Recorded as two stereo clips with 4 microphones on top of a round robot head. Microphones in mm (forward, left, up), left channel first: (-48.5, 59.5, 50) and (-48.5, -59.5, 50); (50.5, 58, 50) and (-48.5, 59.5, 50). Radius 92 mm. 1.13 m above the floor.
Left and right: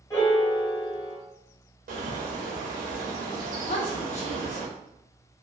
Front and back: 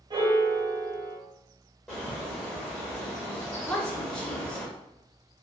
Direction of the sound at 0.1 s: 145° left.